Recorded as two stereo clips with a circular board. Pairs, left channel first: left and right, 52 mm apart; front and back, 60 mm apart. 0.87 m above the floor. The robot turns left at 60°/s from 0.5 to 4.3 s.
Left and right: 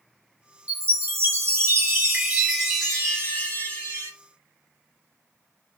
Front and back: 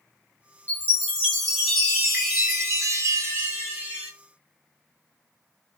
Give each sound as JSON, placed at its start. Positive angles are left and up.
{"t": 0.7, "sound": "a chime", "azimuth_deg": -45, "distance_m": 1.2}